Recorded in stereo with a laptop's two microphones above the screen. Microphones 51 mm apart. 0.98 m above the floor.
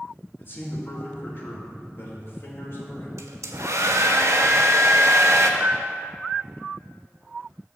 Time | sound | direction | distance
0.4 | a man speaking | 45° left (ahead or behind) | 1.7 m
3.2 | a hair dryer | 70° right (ahead or behind) | 0.7 m
5.6 | a piano | 40° right (ahead or behind) | 0.6 m